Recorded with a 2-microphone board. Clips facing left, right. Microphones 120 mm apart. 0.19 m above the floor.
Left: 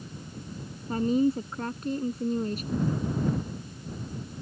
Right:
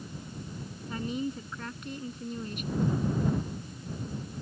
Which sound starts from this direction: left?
A woman speaking, at 0.9 s.